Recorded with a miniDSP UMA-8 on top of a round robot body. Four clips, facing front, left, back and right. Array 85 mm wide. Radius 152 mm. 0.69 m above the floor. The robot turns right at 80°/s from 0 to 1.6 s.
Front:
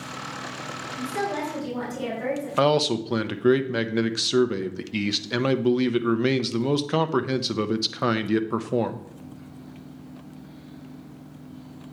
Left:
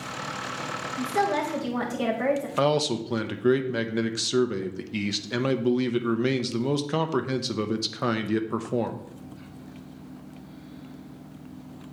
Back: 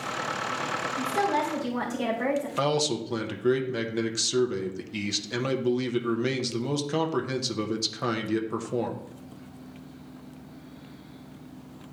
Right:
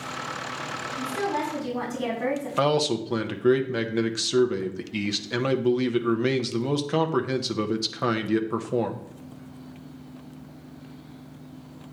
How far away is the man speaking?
About 0.8 m.